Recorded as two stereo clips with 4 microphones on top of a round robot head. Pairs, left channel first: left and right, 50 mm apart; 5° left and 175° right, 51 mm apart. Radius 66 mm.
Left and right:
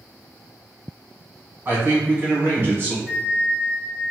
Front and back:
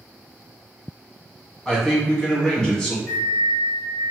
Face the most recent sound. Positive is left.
turn(degrees=-25)